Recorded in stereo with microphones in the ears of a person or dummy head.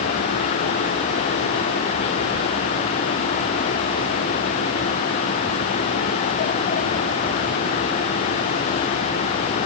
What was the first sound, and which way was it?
Only background noise.